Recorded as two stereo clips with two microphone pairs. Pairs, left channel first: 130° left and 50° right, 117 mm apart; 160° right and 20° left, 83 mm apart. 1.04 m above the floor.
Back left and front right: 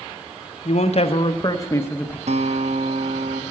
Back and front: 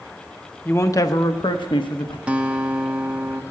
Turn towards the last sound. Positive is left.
turn(degrees=-60)